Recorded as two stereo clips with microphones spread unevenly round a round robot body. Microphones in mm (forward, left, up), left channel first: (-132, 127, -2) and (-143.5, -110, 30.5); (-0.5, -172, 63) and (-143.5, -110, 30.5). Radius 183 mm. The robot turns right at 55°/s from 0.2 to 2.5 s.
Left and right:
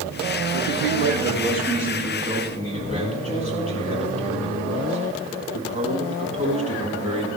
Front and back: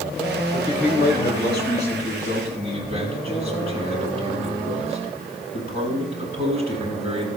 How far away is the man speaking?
About 6 m.